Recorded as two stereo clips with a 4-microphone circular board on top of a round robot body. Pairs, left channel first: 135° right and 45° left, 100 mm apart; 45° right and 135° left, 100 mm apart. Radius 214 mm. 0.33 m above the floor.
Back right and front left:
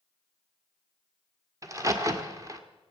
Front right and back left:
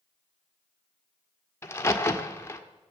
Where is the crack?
5° left, 1.7 m.